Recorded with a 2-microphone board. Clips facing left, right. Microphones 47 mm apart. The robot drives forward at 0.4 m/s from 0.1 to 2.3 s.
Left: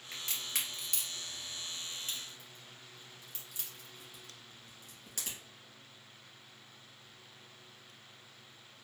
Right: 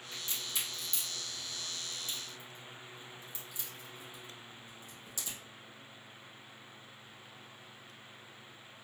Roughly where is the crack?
Left.